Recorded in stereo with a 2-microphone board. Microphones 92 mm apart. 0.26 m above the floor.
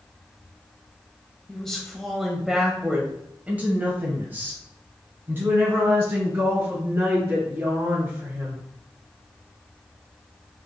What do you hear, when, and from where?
1.5 s a woman speaking: 5° left (ahead or behind), 1.2 m; by 8.6 s 25° right (ahead or behind), 3.5 m